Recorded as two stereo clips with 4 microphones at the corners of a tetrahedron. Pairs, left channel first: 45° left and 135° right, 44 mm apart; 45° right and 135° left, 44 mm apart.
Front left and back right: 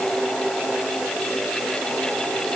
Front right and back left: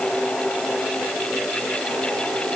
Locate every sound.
Only background noise.